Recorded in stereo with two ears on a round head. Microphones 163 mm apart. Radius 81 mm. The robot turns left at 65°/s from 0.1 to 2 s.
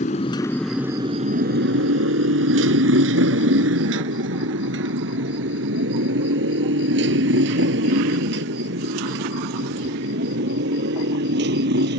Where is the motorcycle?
40° left (ahead or behind); by 12.0 s 65° right (ahead or behind).